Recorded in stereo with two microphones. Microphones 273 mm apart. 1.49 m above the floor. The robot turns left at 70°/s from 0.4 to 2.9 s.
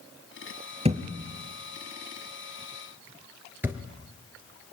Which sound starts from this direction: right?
A thud, at 0.8 s.